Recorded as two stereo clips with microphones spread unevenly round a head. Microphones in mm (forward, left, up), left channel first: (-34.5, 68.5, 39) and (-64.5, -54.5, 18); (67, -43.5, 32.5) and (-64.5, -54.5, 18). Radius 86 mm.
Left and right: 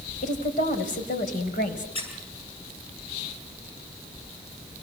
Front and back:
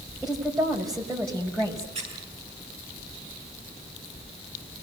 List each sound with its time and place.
0.2 s a woman speaking: 95° left, 5 m; by 1.9 s 85° left, 5.5 m
1.9 s a squeak: 120° left, 9.5 m